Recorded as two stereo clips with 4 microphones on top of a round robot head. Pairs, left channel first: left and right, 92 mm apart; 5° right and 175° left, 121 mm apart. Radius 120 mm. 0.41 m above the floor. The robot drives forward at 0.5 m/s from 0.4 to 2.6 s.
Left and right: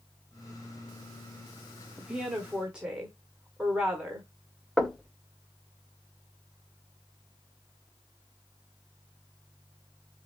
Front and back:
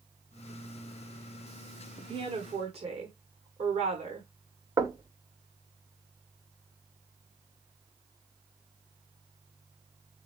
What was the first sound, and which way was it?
A woman speaking, 165° right.